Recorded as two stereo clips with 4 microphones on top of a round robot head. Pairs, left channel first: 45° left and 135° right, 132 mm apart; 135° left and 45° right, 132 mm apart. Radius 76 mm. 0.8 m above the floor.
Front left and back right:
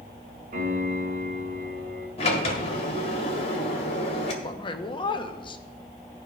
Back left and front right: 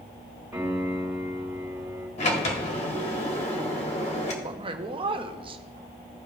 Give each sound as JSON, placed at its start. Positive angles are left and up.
{"t": 0.5, "sound": "a piano", "azimuth_deg": -125, "distance_m": 3.0}
{"t": 2.2, "sound": "a sliding door", "azimuth_deg": 90, "distance_m": 1.6}
{"t": 4.4, "sound": "a man speaking", "azimuth_deg": 0, "distance_m": 0.9}